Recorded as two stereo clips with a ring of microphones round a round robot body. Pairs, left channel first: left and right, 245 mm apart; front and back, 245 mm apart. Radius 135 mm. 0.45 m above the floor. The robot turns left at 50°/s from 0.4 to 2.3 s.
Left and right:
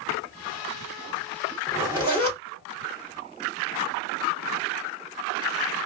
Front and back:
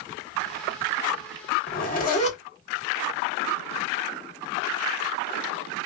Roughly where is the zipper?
Ahead.